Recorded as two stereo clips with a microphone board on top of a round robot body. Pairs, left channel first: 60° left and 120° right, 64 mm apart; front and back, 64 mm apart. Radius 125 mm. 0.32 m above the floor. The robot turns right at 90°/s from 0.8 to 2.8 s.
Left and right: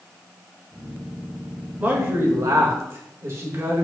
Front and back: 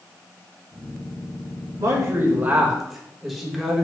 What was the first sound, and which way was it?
A man speaking, 175° left.